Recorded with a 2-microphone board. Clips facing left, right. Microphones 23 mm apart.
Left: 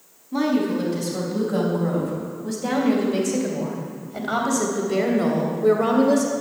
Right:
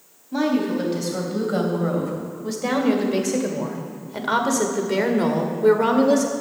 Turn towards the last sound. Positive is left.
turn(degrees=-50)  # may be behind; listen again after turning